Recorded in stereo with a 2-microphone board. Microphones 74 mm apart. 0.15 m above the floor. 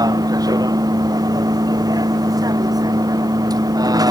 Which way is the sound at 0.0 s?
60° right (ahead or behind).